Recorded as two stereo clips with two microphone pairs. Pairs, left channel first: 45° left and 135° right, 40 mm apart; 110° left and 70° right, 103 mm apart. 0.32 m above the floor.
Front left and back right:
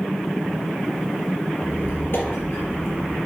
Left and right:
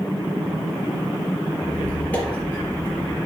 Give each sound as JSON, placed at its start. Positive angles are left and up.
{"t": 1.6, "sound": "a squeak", "azimuth_deg": 35, "distance_m": 3.5}